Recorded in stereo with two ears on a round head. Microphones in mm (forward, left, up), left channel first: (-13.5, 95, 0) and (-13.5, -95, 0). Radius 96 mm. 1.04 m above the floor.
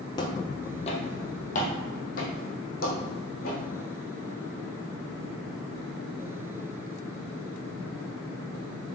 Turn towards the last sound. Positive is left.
turn(degrees=45)  # may be behind; listen again after turning